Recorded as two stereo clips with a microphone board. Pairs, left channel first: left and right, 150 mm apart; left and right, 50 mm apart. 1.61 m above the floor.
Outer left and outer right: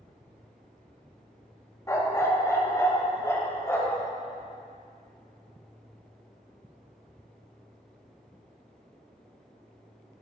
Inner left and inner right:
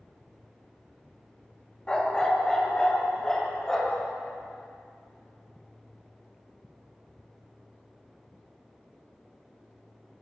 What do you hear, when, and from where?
1.9 s a dog barking: 20° left (ahead or behind), 1.1 m